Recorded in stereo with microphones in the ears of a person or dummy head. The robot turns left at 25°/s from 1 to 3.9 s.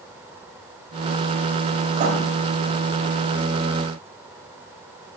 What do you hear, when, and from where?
1.9 s writing: 45° right (ahead or behind), 2 m; by 2.2 s 40° right (ahead or behind), 2 m